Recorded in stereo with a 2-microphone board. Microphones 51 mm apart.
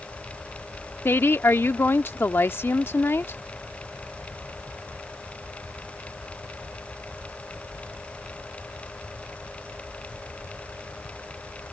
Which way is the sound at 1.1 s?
50° left (ahead or behind).